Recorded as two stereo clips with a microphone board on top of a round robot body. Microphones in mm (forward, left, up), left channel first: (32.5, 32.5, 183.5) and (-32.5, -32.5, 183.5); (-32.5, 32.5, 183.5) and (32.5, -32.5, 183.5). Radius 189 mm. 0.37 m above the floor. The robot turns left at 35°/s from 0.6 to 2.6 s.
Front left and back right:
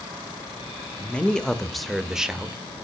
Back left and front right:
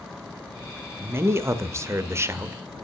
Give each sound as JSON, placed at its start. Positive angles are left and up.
{"t": 1.0, "sound": "a man speaking", "azimuth_deg": -15, "distance_m": 0.8}